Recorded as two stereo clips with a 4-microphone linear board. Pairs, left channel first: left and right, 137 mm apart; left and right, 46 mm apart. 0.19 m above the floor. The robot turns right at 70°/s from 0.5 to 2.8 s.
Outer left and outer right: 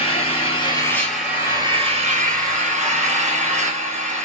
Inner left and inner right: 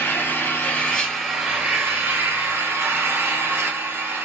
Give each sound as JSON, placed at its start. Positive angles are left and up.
{"t": 0.0, "sound": "an engine running", "azimuth_deg": 135, "distance_m": 1.9}